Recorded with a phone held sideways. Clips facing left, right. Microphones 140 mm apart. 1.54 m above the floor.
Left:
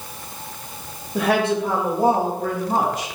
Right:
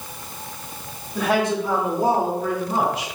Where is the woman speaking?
65° left (ahead or behind), 1.6 m; by 3.1 s 45° left (ahead or behind), 2 m.